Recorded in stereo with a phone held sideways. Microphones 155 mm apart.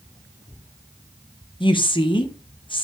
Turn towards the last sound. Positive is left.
turn(degrees=30)  # may be behind; listen again after turning